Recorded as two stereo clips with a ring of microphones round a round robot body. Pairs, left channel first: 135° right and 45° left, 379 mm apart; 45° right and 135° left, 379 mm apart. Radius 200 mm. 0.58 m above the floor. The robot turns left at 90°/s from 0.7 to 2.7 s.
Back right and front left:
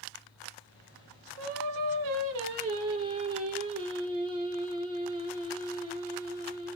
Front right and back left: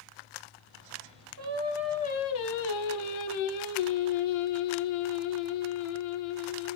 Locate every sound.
1.4 s singing: 90° left, 1.1 m; by 6.8 s 30° right, 1.1 m